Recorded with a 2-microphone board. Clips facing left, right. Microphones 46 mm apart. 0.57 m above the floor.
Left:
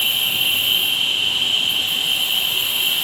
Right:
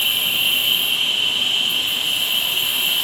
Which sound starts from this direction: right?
An insect, at 0.0 s.